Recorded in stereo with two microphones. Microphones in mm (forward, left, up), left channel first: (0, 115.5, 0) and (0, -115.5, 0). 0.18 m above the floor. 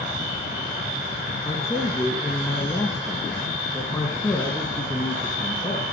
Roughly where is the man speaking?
Centre.